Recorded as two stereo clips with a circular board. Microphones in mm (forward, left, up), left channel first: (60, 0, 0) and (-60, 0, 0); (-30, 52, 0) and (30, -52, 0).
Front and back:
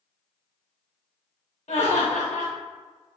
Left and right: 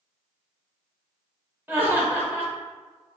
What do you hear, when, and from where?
1.7 s laughter: 15° left, 0.9 m